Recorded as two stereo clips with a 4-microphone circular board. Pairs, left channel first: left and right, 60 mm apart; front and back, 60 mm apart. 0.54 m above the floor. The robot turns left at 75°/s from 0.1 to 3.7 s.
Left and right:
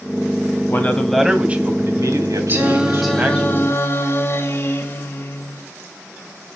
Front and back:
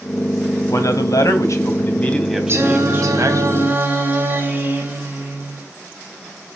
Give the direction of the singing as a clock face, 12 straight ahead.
5 o'clock.